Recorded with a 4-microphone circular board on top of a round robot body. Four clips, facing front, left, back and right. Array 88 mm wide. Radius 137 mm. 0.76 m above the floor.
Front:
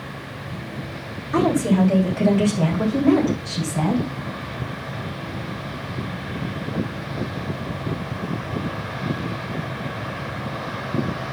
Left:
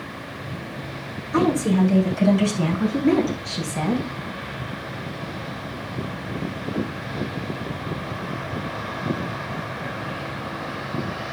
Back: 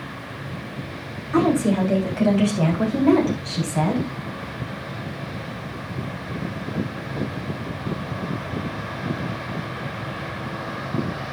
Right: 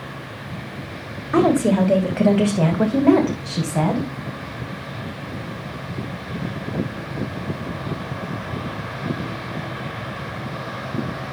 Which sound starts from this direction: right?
A woman speaking, at 1.3 s.